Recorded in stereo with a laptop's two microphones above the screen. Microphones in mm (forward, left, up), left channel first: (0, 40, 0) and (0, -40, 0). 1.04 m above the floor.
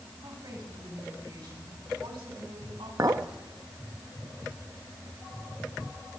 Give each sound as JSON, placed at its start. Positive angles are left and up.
{"t": 0.2, "sound": "a woman speaking", "side_deg": -65, "distance_m": 7.5}
{"t": 3.0, "sound": "a clink", "side_deg": -50, "distance_m": 1.0}